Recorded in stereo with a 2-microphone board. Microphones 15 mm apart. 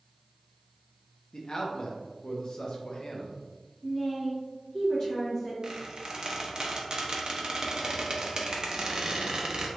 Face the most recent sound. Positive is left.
turn(degrees=-40)  # may be behind; listen again after turning